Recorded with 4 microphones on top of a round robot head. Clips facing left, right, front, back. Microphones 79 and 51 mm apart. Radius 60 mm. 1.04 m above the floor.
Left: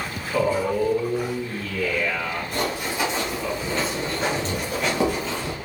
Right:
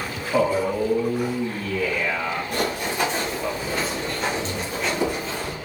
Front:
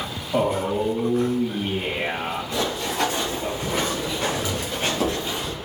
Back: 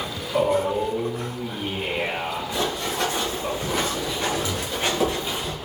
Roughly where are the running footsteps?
Right.